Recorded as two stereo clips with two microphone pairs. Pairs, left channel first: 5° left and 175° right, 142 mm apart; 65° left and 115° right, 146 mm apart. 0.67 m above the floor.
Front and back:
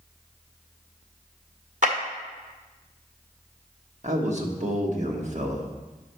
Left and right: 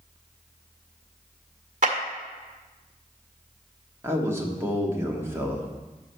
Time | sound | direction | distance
1.8 | a clap | 150° right | 1.6 m
4.0 | a man speaking | straight behind | 1.2 m